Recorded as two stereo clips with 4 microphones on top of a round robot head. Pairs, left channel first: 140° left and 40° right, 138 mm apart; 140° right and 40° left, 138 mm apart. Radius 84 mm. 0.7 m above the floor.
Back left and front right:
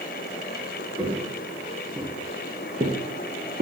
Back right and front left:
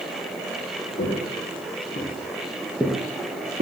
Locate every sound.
1.0 s footsteps: 130° right, 1.4 m; by 3.6 s 10° left, 0.9 m